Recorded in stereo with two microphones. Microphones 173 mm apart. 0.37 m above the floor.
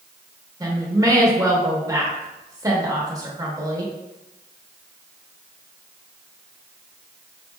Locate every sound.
0.6 s a woman speaking: 20° right (ahead or behind), 0.9 m